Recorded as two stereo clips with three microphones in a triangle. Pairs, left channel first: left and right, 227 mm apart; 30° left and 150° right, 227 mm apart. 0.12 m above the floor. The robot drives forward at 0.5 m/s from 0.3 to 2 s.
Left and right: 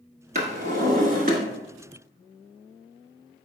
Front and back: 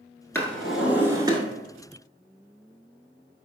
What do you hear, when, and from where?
0.3 s a drawer: 50° right, 1.0 m; by 1.4 s 95° right, 0.9 m